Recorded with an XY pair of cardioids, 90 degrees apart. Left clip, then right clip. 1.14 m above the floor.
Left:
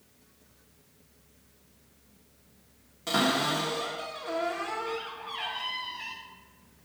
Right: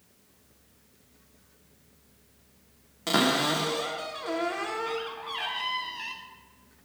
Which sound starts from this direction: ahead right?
A cupboard door, at 3.1 s.